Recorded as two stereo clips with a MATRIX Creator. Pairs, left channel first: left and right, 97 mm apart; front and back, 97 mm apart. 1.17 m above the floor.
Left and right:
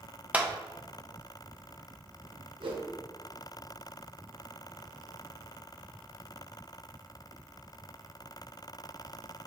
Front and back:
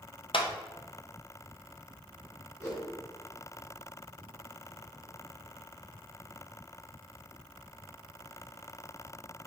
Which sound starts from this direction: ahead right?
A whoosh, at 2.6 s.